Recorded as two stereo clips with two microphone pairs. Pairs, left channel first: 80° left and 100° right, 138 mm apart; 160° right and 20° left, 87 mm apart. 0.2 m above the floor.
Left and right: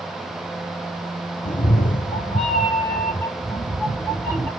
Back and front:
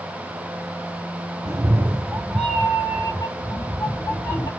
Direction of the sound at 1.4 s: 65° left.